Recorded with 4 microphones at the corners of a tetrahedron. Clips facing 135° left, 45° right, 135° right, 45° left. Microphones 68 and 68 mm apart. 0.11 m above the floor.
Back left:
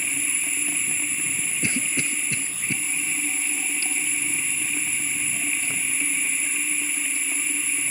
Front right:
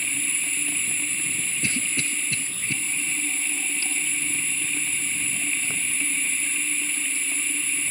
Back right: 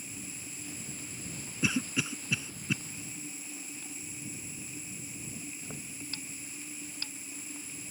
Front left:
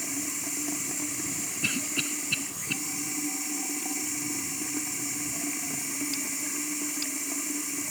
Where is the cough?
165° left.